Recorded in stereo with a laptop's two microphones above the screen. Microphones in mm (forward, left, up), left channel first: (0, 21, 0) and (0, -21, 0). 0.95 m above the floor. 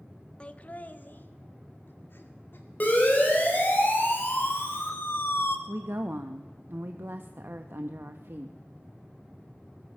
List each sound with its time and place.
0.4 s laughter: 25° left (ahead or behind), 0.6 m; by 2.6 s 55° left (ahead or behind), 2 m
2.8 s a siren: 40° left (ahead or behind), 4 m; by 5.6 s 75° left (ahead or behind), 1.3 m
5.7 s a woman speaking: 55° right (ahead or behind), 0.8 m